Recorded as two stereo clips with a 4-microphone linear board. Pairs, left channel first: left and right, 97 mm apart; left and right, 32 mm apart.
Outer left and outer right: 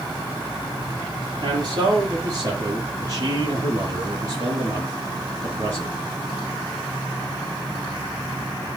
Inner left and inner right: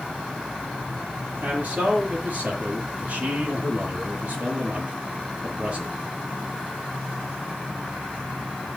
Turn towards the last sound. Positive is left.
turn(degrees=-35)  # may be behind; listen again after turning